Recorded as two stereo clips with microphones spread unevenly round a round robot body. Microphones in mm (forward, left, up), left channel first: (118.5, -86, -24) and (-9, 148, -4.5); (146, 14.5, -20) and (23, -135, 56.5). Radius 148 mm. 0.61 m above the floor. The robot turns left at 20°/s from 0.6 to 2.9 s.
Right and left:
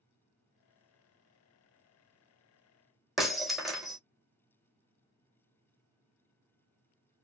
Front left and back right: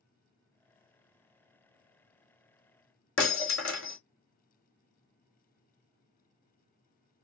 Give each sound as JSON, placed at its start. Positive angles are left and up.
{"t": 3.2, "sound": "breaking glass", "azimuth_deg": 30, "distance_m": 1.7}